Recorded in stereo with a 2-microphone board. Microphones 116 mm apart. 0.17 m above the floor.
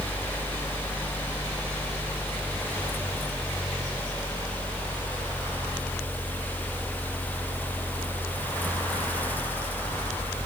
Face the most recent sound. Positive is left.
No sound to turn to.